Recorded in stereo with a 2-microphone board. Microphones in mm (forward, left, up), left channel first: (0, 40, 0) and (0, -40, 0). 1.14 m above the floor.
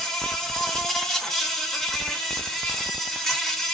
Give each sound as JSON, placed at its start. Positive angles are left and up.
{"t": 0.0, "sound": "an insect", "side_deg": 5, "distance_m": 0.9}